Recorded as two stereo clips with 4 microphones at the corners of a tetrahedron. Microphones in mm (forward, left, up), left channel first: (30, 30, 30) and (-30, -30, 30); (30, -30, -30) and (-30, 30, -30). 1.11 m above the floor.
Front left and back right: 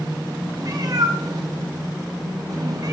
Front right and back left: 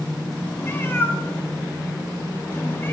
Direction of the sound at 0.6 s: 105° right.